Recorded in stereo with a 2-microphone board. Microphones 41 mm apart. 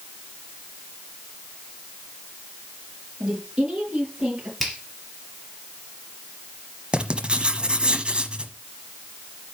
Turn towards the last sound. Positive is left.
turn(degrees=-30)  # may be behind; listen again after turning